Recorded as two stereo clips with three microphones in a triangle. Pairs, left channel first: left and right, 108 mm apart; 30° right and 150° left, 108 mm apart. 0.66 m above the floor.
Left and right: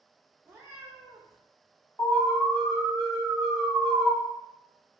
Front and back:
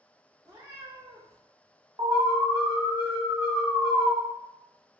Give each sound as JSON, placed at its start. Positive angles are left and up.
{"t": 0.5, "sound": "a cat meowing", "azimuth_deg": -155, "distance_m": 0.8}
{"t": 2.0, "sound": "an alarm", "azimuth_deg": 140, "distance_m": 1.2}